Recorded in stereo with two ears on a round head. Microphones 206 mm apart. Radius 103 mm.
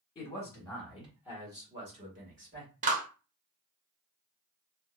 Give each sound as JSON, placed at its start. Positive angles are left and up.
{"t": 0.1, "sound": "a man speaking", "side_deg": 20, "distance_m": 1.2}
{"t": 2.8, "sound": "a clap", "side_deg": -35, "distance_m": 0.8}